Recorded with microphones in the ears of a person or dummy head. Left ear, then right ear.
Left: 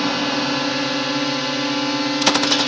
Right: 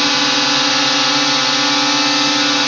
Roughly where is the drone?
Right.